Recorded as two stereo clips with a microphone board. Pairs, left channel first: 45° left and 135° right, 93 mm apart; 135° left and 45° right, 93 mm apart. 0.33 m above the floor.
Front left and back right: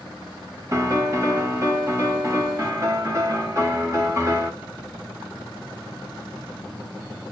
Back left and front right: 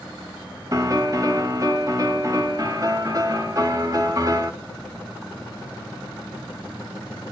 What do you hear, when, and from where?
0.7 s a piano: 85° right, 2.5 m